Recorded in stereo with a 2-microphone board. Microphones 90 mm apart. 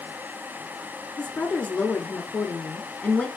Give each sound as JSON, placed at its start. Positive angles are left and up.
{"t": 1.2, "sound": "a woman speaking", "side_deg": 15, "distance_m": 1.2}